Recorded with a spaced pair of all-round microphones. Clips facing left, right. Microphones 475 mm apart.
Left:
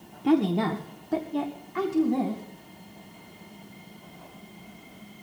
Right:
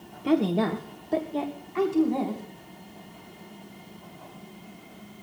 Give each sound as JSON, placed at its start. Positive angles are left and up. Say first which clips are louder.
{"t": 0.2, "sound": "a woman speaking", "louder": "left 1 dB", "side_deg": 10, "distance_m": 1.3}